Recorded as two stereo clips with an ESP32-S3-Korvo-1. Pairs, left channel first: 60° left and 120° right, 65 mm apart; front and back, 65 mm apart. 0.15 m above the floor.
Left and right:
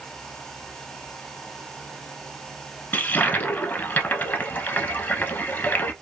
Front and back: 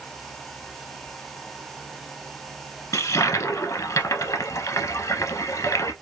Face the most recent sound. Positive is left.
turn(degrees=5)